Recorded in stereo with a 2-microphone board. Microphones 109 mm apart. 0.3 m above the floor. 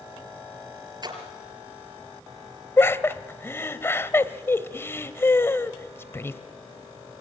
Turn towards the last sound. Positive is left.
turn(degrees=25)  # may be behind; listen again after turning